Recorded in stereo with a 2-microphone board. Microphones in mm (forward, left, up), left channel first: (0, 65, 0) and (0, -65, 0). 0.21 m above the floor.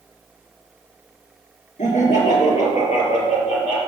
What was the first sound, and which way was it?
Laughter, 70° left (ahead or behind).